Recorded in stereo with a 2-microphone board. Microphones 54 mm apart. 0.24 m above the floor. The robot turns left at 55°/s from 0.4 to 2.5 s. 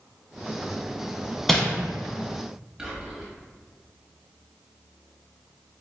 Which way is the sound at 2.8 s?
15° right (ahead or behind).